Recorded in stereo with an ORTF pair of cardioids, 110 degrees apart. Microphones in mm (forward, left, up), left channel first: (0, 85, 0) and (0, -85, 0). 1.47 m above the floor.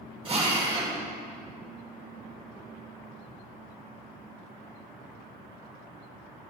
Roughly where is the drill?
Ahead right.